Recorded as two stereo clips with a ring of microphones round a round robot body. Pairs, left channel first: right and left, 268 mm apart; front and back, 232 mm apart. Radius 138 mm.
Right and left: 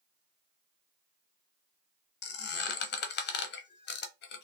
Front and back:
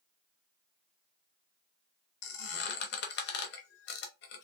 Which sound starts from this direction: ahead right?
A squeak, at 2.2 s.